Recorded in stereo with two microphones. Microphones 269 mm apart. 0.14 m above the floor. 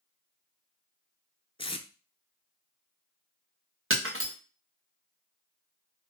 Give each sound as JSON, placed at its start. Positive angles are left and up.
{"t": 1.6, "sound": "tape being pulled", "side_deg": 20, "distance_m": 0.5}
{"t": 3.9, "sound": "breaking glass", "side_deg": -50, "distance_m": 1.3}